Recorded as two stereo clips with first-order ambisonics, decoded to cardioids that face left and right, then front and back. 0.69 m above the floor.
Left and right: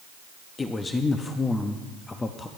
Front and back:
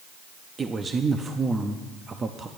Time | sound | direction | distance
0.6 | a man speaking | 145° left | 0.5 m